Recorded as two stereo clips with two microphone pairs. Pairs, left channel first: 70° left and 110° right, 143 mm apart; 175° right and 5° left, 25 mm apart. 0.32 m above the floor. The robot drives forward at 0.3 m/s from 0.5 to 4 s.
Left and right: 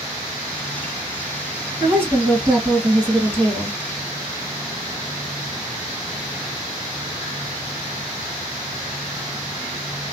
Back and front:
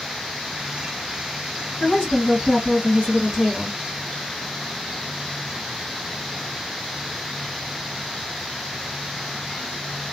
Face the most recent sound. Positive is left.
turn(degrees=-170)